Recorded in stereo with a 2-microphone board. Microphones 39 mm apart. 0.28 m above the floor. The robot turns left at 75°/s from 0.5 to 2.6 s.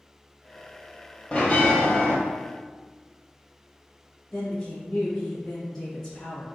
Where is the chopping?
No chopping in this recording.